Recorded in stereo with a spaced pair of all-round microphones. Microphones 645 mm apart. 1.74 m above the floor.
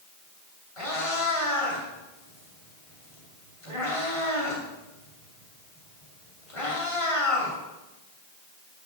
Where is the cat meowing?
55° left (ahead or behind), 2.5 m.